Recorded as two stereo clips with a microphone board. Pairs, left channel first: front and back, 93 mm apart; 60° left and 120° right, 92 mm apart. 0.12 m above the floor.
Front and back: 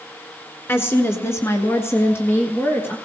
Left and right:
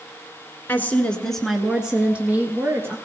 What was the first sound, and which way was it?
A woman speaking, 25° left.